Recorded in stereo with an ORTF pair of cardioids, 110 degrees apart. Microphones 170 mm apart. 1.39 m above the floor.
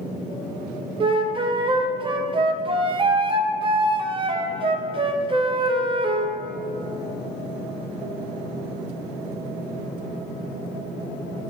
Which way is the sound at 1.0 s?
30° right.